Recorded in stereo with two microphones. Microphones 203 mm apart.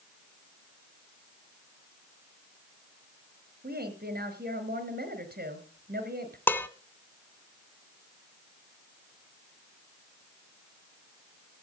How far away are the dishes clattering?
About 0.8 m.